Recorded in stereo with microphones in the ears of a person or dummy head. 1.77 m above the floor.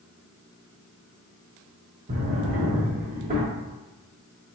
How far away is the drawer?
About 1.2 m.